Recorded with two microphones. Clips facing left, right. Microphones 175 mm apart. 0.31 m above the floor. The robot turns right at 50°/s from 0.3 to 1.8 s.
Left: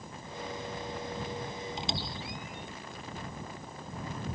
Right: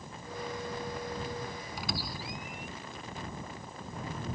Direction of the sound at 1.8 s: 25° left (ahead or behind).